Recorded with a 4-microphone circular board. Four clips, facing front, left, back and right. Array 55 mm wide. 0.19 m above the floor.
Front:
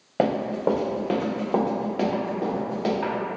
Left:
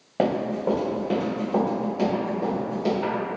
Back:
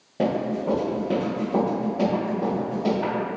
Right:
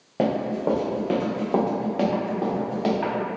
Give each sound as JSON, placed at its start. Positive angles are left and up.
{"t": 0.2, "sound": "running footsteps", "azimuth_deg": 5, "distance_m": 0.8}